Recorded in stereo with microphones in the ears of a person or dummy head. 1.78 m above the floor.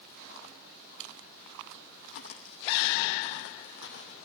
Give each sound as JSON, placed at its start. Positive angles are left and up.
{"t": 2.1, "sound": "footsteps", "side_deg": 55, "distance_m": 3.5}